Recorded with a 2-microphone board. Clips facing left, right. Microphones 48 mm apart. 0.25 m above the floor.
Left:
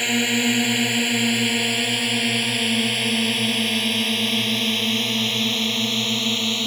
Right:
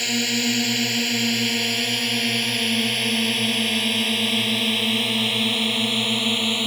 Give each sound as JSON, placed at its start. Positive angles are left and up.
{"t": 0.0, "sound": "a drone", "side_deg": 20}